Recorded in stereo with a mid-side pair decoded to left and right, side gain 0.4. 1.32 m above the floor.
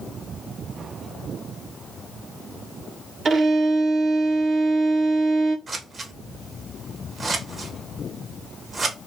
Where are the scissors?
40° right, 0.9 m.